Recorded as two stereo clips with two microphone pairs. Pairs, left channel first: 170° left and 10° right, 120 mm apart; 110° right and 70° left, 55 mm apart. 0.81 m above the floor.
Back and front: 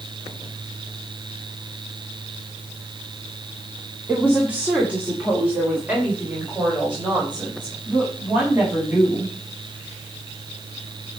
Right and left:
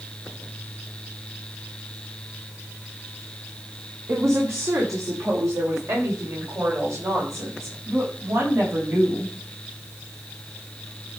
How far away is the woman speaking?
About 2 m.